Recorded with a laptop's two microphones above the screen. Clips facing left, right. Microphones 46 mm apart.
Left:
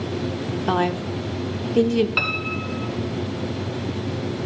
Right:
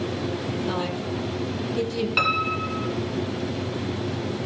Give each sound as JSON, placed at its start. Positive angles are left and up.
{"t": 0.7, "sound": "a woman speaking", "side_deg": 55, "distance_m": 1.4}
{"t": 2.2, "sound": "a piano", "side_deg": 5, "distance_m": 1.1}